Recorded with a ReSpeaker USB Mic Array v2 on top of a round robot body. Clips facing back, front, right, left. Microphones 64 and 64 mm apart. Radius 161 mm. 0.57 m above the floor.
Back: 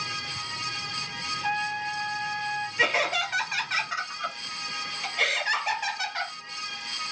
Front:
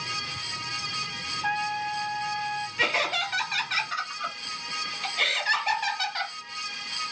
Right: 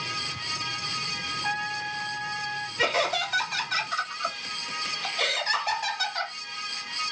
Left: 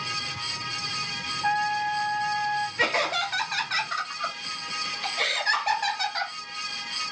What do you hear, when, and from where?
1.4 s a trumpet: 75° left, 1.3 m
2.8 s laughter: 100° left, 1.6 m